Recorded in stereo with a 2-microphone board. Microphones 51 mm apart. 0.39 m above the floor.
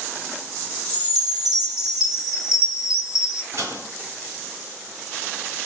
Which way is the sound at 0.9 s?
5° right (ahead or behind).